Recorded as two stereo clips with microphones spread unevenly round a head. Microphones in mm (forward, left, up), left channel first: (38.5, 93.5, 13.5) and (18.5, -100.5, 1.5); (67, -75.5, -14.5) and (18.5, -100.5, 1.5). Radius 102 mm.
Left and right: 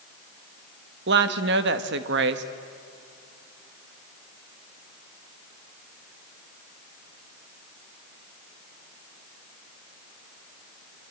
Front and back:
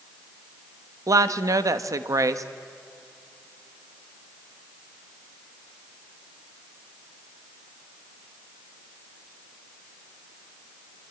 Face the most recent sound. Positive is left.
turn(degrees=-135)